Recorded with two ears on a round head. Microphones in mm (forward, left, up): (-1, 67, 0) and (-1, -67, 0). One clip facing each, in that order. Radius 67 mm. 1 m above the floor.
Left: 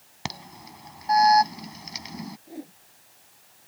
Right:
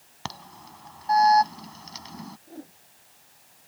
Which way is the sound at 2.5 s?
15° left (ahead or behind).